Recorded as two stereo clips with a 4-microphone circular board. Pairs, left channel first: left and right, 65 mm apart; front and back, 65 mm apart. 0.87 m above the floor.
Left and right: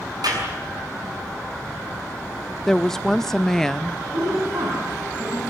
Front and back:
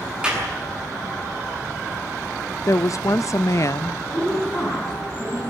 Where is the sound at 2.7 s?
5° left, 0.5 m.